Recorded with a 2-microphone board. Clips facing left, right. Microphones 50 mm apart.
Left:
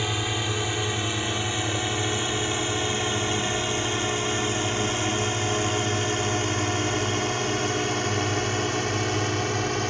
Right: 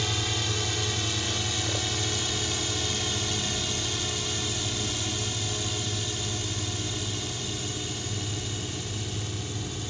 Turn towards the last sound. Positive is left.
turn(degrees=65)  # may be behind; listen again after turning